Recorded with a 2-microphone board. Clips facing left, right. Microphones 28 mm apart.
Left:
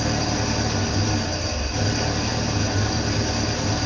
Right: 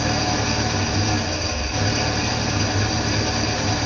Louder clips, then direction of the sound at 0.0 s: Right 2 dB; 55° right (ahead or behind).